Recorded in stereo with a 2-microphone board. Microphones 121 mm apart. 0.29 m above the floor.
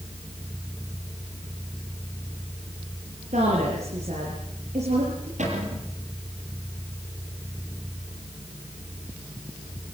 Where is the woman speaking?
70° right (ahead or behind), 6.5 m.